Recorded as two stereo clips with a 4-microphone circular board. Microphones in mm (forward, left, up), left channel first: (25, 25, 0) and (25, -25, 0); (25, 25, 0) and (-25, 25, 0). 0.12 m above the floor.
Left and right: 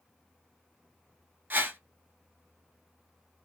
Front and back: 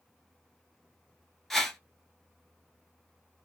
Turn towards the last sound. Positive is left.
turn(degrees=-85)